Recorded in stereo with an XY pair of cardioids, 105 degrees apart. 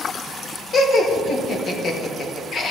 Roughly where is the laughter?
Ahead left.